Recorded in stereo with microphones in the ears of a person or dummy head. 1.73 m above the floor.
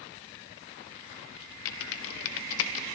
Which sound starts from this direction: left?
Typing on a keyboard, at 1.6 s.